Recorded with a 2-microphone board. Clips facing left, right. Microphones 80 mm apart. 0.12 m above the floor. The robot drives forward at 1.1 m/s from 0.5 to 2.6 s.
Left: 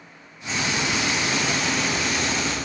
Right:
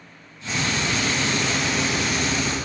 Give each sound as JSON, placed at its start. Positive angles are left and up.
{"t": 0.5, "sound": "frying", "side_deg": -5, "distance_m": 7.0}